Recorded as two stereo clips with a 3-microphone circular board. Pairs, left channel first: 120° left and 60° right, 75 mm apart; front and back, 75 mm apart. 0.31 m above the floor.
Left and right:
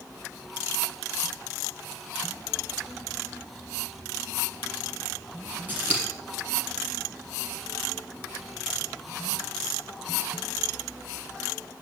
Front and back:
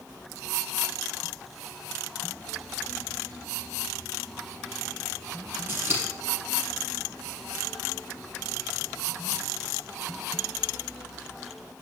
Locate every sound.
5.7 s scissors: 125° right, 4.5 m